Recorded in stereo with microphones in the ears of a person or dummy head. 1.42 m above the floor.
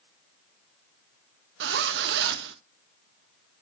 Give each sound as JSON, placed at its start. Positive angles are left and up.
{"t": 1.6, "sound": "a zipper", "side_deg": -65, "distance_m": 1.0}